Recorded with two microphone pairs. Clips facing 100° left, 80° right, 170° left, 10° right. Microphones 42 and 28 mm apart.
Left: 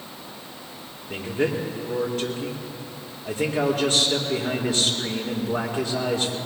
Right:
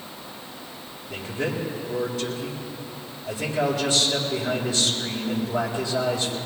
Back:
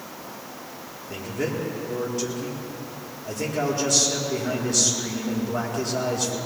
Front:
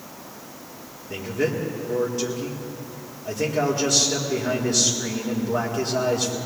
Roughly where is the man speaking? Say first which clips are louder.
Left 4 dB, front 3 dB; ahead left.